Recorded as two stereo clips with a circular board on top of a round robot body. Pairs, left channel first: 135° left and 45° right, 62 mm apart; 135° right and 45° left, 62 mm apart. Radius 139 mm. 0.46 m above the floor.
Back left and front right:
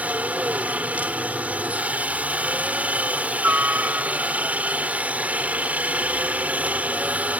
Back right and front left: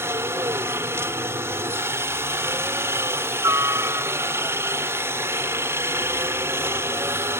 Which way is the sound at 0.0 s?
15° left.